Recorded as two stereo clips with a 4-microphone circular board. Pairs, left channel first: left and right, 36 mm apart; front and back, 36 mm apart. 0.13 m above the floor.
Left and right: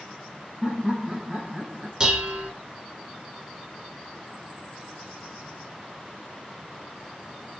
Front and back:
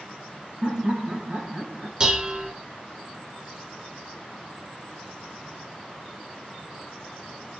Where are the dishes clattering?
135° right, 1.0 m.